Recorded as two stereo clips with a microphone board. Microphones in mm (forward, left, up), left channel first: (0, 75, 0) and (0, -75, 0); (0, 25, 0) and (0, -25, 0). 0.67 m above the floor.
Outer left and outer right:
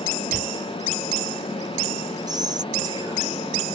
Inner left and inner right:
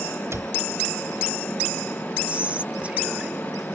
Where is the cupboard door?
70° right (ahead or behind).